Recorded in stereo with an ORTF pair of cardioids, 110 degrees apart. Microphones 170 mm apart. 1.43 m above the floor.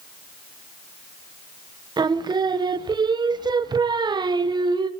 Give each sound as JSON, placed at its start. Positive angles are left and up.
{"t": 2.0, "sound": "singing", "azimuth_deg": -25, "distance_m": 1.3}